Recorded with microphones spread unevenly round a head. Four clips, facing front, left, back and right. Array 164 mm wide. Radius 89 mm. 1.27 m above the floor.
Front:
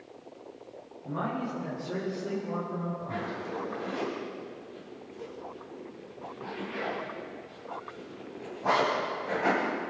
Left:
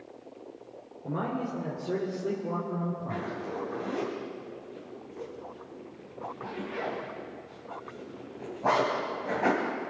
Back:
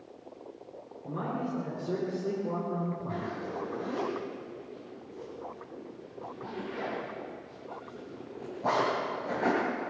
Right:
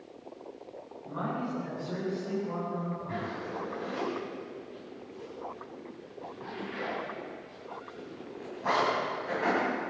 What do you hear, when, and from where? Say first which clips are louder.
1.0 s a man speaking: left 2 dB, front 1 dB; 110° left, 3.5 m; by 3.3 s 140° left, 3 m
3.1 s a zipper: left 1 dB, front 1 dB; 120° left, 3.5 m